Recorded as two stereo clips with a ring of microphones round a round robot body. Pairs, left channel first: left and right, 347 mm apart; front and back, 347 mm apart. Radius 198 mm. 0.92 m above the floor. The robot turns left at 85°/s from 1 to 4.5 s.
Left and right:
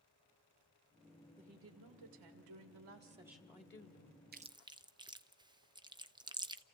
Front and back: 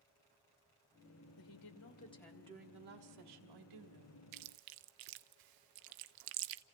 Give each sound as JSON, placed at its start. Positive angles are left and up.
{"t": 1.4, "sound": "a woman speaking", "azimuth_deg": -10, "distance_m": 2.5}
{"t": 4.3, "sound": "chewing", "azimuth_deg": -150, "distance_m": 0.8}